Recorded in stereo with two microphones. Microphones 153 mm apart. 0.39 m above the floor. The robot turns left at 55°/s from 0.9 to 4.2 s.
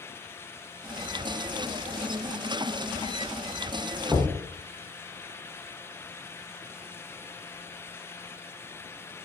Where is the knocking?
15° right (ahead or behind), 0.5 m.